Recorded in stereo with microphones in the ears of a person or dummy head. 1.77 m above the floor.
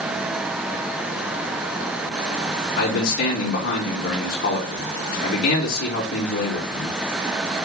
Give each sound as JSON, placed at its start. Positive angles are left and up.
{"t": 2.8, "sound": "a man speaking", "side_deg": 50, "distance_m": 3.5}